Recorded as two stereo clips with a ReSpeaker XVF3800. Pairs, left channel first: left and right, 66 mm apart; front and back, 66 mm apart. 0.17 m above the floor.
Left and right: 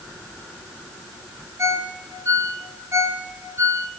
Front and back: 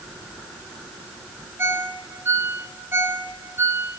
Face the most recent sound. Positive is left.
turn(degrees=-130)